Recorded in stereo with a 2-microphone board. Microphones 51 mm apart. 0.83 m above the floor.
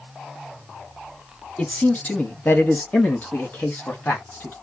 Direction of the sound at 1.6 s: 30° left (ahead or behind).